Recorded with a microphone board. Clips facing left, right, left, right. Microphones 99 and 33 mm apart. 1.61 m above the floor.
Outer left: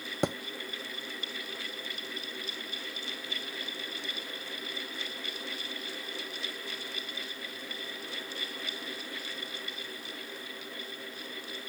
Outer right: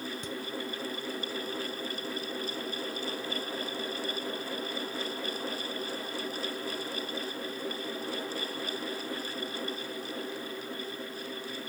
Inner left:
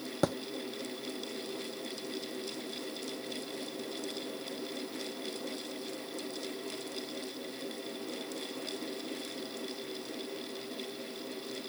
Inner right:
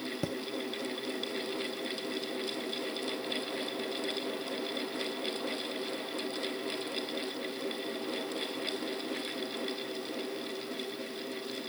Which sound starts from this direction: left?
A thud, at 0.2 s.